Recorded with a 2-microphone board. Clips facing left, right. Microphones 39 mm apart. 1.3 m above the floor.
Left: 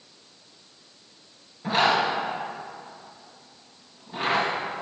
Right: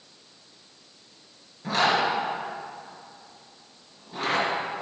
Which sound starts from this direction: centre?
A zipper, at 1.6 s.